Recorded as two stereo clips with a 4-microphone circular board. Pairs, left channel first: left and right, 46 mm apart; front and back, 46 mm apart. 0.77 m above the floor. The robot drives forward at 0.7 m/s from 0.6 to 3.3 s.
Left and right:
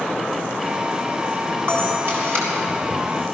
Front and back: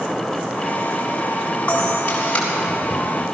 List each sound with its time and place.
1.7 s a camera shutter: 55° right, 7.5 m; by 2.5 s 60° right, 7 m